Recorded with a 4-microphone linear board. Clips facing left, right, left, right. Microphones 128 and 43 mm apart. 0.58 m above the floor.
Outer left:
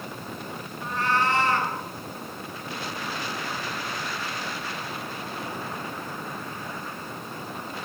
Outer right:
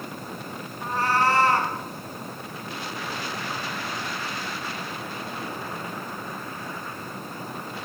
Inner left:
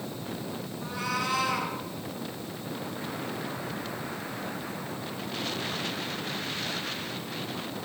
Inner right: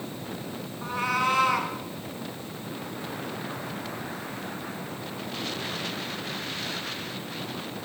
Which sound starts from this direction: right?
A cat meowing, at 0.8 s.